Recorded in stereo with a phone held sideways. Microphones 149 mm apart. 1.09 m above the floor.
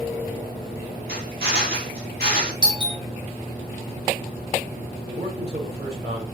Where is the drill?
85° right, 3 m.